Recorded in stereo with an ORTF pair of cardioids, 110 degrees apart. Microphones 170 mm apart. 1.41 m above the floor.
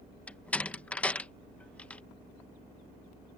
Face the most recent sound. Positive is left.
turn(degrees=10)